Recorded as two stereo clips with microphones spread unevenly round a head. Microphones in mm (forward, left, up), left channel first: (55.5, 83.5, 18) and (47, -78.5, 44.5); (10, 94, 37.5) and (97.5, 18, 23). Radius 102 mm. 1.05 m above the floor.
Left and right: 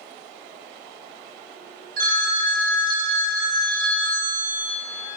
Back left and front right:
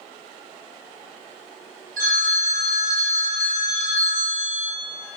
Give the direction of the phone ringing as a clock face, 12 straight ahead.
2 o'clock.